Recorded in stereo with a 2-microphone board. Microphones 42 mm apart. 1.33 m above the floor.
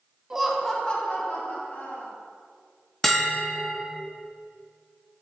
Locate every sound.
0.3 s laughter: 15° right (ahead or behind), 1.0 m; by 2.1 s 55° left (ahead or behind), 2.5 m
3.0 s a bell: 5° left (ahead or behind), 0.8 m